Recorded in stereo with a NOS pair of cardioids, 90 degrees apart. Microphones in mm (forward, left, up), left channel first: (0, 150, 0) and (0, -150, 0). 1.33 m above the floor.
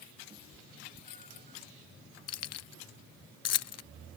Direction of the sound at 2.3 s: 60° left.